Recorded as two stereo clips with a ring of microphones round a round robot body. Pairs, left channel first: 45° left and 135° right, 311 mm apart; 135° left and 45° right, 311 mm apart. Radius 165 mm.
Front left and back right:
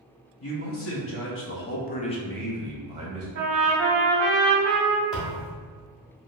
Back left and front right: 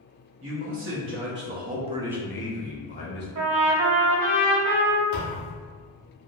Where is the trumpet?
85° right, 0.8 m.